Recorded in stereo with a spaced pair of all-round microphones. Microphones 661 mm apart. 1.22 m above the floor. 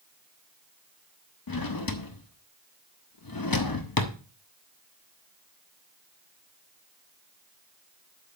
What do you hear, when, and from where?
1.5 s a drawer: 35° left (ahead or behind), 0.7 m